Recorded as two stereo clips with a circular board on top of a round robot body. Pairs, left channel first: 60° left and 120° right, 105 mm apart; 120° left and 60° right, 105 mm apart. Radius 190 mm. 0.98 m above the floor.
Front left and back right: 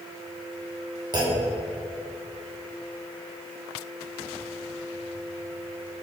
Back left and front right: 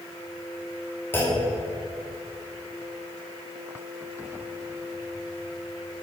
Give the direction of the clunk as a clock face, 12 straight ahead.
6 o'clock.